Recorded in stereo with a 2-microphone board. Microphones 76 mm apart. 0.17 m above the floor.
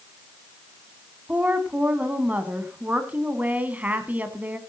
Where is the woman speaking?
20° right (ahead or behind), 1.4 m.